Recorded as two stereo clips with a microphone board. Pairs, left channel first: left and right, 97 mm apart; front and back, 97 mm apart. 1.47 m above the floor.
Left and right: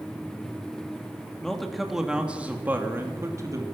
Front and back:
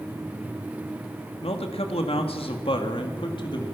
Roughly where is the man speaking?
Ahead.